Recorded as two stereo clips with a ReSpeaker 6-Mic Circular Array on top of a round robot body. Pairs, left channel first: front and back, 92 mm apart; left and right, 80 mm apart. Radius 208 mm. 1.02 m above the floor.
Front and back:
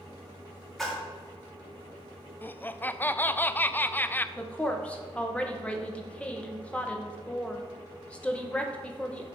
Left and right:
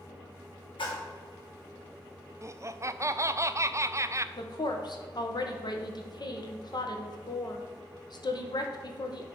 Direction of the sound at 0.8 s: 90° left.